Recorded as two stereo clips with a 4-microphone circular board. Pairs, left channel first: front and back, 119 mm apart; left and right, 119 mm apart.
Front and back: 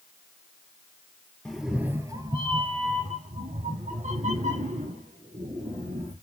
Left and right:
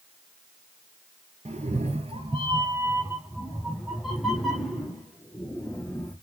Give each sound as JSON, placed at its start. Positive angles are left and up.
{"t": 1.4, "sound": "a cat meowing", "azimuth_deg": -85, "distance_m": 0.7}